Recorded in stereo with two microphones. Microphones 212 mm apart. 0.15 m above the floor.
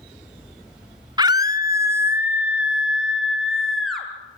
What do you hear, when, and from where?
1.2 s a scream: 20° right (ahead or behind), 1.0 m; by 4.1 s centre (ahead or behind), 2.5 m